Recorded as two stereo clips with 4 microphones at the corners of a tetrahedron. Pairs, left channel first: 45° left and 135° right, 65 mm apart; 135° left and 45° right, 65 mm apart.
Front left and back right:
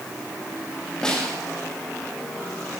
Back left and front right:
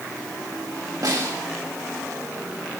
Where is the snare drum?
35° right, 2.5 m.